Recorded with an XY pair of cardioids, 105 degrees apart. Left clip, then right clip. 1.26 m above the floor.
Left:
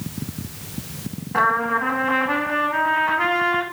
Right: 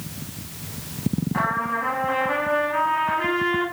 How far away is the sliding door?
I don't hear a sliding door.